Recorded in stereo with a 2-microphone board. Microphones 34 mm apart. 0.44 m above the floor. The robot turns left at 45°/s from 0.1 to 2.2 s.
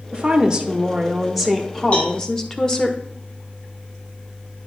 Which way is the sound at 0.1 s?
120° right.